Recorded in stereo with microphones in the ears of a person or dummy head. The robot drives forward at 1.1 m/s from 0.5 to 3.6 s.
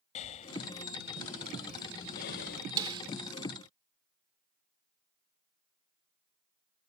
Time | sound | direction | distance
0.1 | breathing | 40° left (ahead or behind) | ?
2.8 | a snare drum | 20° right (ahead or behind) | ?